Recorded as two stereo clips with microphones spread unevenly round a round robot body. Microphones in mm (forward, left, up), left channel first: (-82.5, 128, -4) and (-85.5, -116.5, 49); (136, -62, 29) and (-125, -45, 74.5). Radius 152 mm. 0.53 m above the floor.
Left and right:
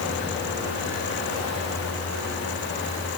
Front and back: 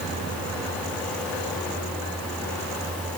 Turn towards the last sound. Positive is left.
No sound to turn to.